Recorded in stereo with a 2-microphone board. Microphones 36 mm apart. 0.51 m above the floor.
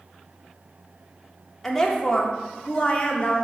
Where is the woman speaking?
10° left (ahead or behind), 1.3 m; by 3.4 s 30° left (ahead or behind), 1.4 m.